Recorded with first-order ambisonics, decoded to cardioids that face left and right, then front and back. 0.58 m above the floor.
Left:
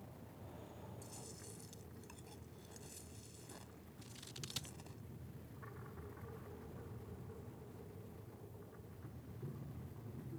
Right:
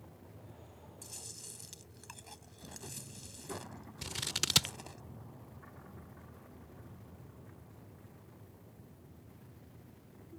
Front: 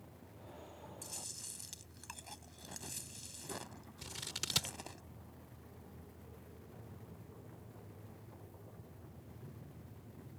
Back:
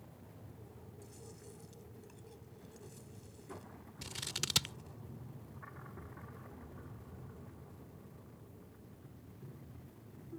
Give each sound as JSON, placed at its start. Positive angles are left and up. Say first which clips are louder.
{"t": 1.0, "sound": "chewing", "louder": "right 5 dB, front 9 dB", "azimuth_deg": -35}
{"t": 4.0, "sound": "scissors", "louder": "right 18 dB, back 3 dB", "azimuth_deg": -100}